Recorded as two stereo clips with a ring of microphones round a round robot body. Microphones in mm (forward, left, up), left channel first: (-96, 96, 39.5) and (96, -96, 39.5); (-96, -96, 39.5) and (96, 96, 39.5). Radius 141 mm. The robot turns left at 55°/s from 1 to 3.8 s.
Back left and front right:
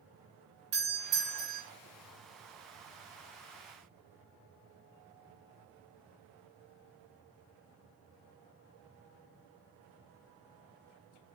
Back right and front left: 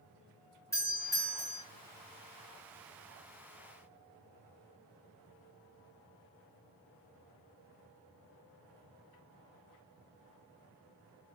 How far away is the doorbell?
About 2.0 m.